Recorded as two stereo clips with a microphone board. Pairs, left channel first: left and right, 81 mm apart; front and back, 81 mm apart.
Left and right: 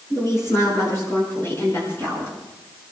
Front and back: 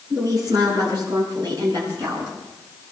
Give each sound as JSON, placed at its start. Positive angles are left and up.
{"t": 0.1, "sound": "a woman speaking", "azimuth_deg": 140, "distance_m": 8.0}